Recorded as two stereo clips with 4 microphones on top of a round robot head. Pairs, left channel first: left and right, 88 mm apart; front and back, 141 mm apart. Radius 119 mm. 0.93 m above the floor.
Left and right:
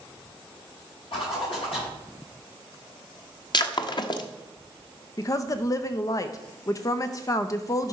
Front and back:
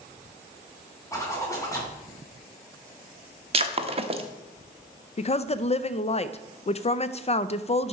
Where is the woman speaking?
40° left, 0.5 m.